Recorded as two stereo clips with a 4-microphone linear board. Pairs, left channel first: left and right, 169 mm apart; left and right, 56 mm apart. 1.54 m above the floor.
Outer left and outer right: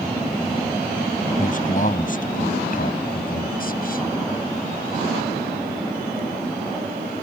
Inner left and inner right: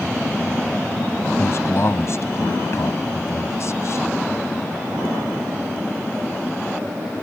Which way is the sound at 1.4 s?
50° left (ahead or behind).